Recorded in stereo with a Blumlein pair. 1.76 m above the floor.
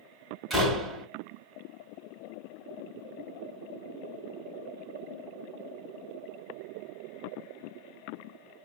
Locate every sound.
0.5 s a door slam: 5° right, 2.5 m